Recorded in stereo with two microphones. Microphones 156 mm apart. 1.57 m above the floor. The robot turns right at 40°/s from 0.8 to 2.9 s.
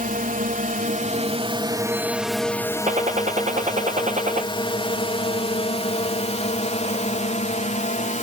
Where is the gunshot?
50° right (ahead or behind); by 4.5 s 45° right (ahead or behind).